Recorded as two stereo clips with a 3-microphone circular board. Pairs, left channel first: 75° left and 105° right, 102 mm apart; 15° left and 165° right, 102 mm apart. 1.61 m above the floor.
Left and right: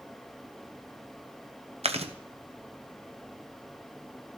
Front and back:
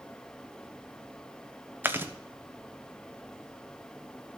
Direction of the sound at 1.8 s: 95° right.